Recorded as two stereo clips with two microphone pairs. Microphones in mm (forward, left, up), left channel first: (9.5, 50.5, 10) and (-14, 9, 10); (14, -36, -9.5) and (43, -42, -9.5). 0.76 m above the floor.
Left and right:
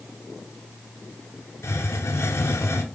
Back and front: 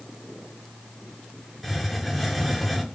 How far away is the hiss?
About 0.6 m.